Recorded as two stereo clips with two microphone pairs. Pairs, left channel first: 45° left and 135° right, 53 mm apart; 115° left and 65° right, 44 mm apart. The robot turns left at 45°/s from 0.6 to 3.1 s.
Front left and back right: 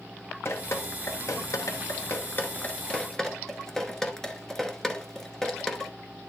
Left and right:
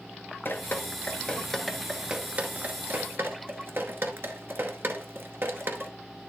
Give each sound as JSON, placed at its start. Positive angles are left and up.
{"t": 0.5, "sound": "dripping", "azimuth_deg": 80, "distance_m": 1.0}